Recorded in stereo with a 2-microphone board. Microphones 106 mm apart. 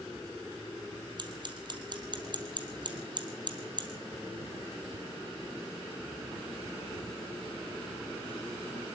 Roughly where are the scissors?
Right.